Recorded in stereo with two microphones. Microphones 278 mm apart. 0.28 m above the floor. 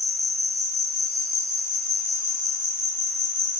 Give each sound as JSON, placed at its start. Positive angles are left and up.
{"t": 0.0, "sound": "an insect", "side_deg": -60, "distance_m": 1.3}